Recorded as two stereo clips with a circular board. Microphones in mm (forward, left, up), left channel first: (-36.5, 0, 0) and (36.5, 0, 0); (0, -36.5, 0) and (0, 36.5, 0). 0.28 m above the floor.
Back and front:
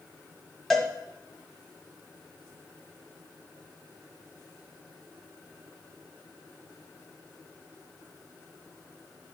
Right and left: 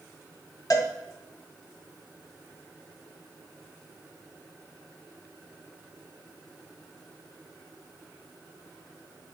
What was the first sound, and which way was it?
A cowbell, 95° right.